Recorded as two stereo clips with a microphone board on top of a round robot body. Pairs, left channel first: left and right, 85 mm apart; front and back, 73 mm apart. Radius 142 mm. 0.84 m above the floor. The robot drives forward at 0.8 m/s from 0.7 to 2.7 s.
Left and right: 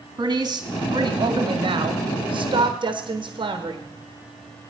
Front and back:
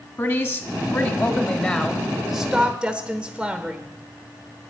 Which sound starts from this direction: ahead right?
A woman speaking, at 0.2 s.